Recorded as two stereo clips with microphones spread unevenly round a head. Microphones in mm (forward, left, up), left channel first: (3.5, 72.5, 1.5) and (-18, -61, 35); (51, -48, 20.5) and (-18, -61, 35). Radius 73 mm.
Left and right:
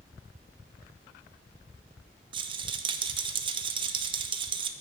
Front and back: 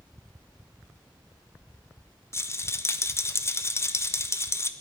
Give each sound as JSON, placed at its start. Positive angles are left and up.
{"t": 2.3, "sound": "a rattle", "azimuth_deg": -45, "distance_m": 0.8}